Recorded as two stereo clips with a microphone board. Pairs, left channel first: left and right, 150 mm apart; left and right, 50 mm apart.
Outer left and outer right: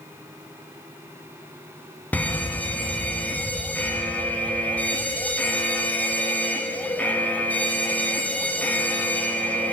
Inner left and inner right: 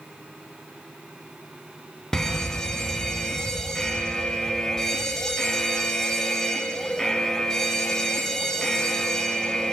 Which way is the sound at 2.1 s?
10° left (ahead or behind).